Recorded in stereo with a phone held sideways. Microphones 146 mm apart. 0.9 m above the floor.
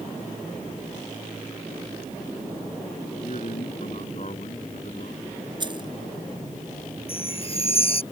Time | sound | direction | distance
3.1 | a man speaking | 50° left (ahead or behind) | ?
5.6 | keys jangling | 30° right (ahead or behind) | ?
7.1 | a chime | 40° left (ahead or behind) | ?